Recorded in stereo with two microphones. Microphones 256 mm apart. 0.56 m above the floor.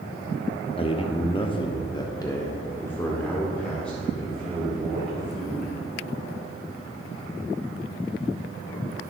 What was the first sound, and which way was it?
A man speaking, 20° left (ahead or behind).